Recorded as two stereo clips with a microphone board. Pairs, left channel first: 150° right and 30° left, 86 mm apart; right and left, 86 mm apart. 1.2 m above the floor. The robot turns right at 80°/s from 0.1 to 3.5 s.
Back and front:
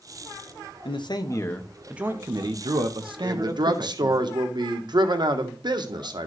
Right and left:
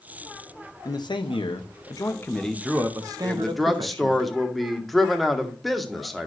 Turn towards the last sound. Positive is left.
turn(degrees=0)